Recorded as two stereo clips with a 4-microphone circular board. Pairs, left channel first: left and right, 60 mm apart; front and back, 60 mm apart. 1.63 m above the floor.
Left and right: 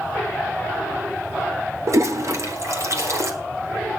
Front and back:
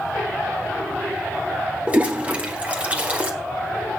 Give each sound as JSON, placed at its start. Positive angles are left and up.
{"t": 1.9, "sound": "a toilet flushing", "azimuth_deg": -115, "distance_m": 1.7}